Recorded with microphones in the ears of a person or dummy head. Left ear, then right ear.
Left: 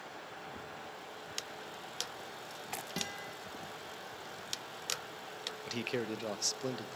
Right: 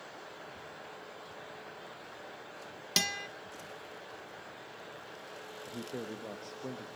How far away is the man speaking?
About 1.0 m.